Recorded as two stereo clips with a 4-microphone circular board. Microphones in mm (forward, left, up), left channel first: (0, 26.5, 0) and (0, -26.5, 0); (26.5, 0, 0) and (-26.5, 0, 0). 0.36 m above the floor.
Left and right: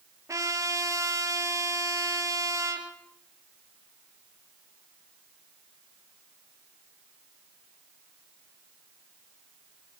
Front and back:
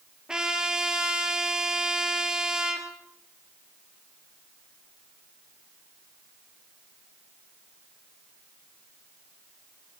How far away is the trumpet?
About 3 m.